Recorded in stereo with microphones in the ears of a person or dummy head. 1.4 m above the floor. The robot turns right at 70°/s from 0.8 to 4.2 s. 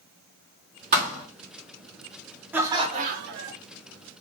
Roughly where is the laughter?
Behind.